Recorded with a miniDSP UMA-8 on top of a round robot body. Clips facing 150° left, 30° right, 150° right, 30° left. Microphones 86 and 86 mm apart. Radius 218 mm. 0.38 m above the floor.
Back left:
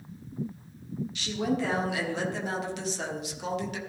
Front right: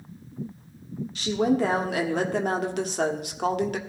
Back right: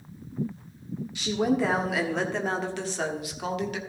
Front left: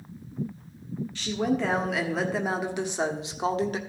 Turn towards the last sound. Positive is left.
turn(degrees=-15)